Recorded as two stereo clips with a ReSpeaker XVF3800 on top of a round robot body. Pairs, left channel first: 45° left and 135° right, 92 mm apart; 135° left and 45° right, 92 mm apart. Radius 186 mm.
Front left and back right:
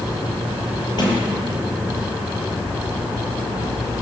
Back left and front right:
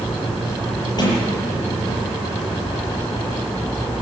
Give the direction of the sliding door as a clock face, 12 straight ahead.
9 o'clock.